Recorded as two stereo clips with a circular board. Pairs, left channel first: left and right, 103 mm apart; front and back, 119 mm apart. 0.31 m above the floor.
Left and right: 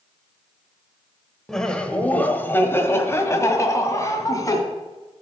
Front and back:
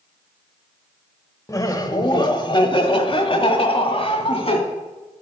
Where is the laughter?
10° left, 1.0 m; by 4.6 s 35° left, 2 m.